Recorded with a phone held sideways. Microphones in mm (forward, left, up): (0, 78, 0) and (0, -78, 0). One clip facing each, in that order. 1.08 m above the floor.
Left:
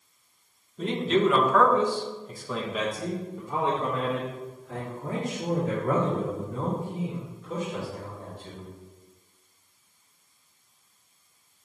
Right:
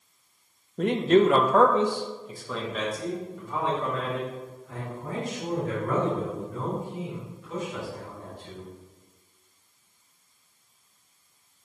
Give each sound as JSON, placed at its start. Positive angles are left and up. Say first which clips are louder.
{"t": 0.8, "sound": "a man speaking", "louder": "right 4 dB", "side_deg": -65, "distance_m": 0.7}